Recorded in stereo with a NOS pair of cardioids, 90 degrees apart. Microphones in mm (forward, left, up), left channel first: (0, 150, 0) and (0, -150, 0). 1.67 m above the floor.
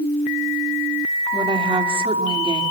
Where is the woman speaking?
15° right, 4.5 m.